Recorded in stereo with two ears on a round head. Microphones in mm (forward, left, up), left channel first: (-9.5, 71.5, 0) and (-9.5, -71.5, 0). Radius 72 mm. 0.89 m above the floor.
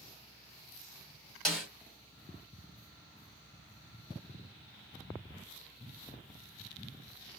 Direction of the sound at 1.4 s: Centre (ahead or behind).